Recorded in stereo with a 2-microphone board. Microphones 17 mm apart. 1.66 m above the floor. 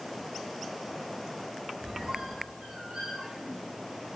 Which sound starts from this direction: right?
A squeak, at 1.8 s.